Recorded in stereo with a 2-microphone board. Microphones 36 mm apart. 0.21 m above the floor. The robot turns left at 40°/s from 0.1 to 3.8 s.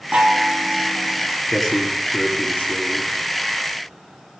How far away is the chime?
About 0.7 m.